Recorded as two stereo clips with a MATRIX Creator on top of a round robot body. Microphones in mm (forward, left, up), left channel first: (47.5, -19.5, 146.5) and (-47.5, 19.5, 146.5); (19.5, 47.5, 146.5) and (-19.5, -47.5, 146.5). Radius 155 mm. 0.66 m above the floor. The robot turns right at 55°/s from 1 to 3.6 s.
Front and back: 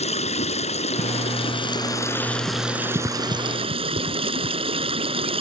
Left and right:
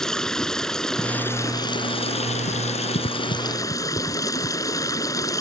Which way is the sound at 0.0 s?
15° right.